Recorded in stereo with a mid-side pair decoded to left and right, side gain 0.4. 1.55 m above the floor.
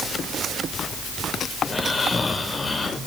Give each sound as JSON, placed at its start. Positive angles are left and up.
{"t": 1.6, "sound": "snoring", "azimuth_deg": 30, "distance_m": 4.0}